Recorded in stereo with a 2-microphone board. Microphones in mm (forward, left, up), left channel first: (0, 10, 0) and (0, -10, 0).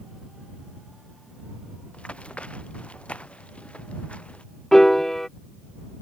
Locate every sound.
1.9 s running footsteps: 75° left (ahead or behind); by 4.4 s 80° left
4.7 s a piano: 25° left (ahead or behind)